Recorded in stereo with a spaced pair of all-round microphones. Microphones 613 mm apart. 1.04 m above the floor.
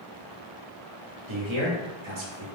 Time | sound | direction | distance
1.3 | a man speaking | 50° right (ahead or behind) | 1.1 m